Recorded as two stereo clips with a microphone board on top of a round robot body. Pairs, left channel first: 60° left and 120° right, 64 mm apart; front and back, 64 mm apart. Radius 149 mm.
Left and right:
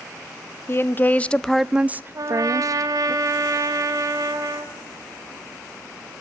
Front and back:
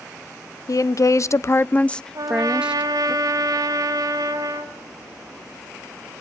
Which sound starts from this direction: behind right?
A trumpet, at 2.1 s.